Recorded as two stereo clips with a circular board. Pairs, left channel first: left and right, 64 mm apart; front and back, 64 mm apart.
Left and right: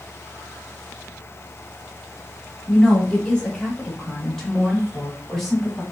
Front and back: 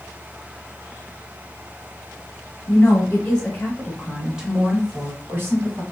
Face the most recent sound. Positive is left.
turn(degrees=180)